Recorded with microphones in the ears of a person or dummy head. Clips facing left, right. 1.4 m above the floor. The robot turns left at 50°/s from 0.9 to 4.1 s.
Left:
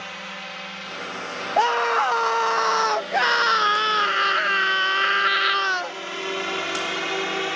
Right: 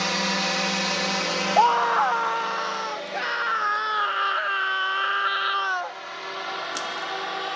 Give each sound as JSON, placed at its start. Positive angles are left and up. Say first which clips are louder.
{"t": 0.0, "sound": "a drone", "louder": "right 11 dB", "side_deg": -65}
{"t": 1.6, "sound": "a scream", "louder": "even", "azimuth_deg": 160}